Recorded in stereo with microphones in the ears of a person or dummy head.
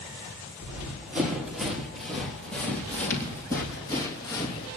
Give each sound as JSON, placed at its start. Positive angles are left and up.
{"t": 0.6, "sound": "running footsteps", "side_deg": -10, "distance_m": 4.5}